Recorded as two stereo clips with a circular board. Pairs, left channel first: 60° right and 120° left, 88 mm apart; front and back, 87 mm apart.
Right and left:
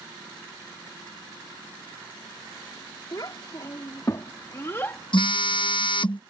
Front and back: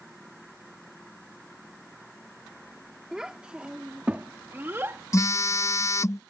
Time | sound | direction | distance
3.1 | a child speaking | 100° right | ?
5.1 | a phone buzzing | 55° right | ?